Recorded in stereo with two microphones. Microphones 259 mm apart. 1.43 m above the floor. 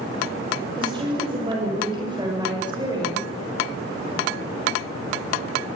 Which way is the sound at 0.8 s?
20° right (ahead or behind).